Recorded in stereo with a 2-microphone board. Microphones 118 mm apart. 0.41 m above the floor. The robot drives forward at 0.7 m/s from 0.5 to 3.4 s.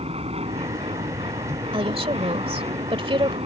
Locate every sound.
0.0 s an aircraft: 60° right (ahead or behind)
1.7 s a woman speaking: 50° right (ahead or behind); by 3.4 s 45° right (ahead or behind)